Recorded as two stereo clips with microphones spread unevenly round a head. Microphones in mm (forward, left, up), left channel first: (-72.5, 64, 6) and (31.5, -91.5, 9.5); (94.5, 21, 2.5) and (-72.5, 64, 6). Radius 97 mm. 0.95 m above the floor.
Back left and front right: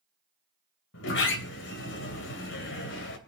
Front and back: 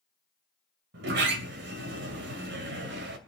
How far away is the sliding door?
About 2.5 m.